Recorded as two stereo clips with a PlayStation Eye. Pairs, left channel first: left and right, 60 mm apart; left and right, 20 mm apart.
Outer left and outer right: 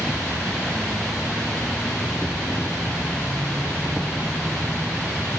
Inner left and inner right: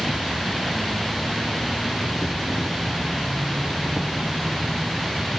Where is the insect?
15° right (ahead or behind), 1.0 m.